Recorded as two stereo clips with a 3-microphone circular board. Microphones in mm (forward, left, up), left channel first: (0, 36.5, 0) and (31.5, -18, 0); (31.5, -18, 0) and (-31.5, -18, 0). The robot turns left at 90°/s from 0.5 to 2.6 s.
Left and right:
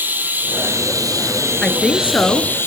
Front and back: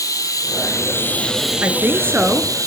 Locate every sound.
0.0 s running water: 5° right, 2 m; by 2.7 s 170° left, 2 m
1.6 s a woman speaking: 165° right, 1.3 m; by 2.5 s 115° left, 1.3 m